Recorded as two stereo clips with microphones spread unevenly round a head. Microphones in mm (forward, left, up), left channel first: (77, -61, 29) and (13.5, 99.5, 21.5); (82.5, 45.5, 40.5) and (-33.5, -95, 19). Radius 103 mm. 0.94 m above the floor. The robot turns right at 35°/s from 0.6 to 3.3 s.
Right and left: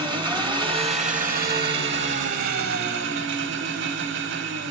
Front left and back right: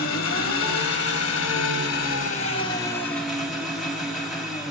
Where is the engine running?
45° left, 1.3 m; by 4.7 s 140° left, 1.3 m.